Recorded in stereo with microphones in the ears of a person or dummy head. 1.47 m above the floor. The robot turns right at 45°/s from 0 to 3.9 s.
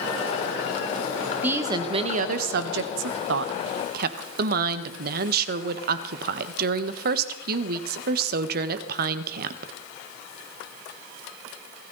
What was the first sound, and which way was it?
A woman speaking, 170° right.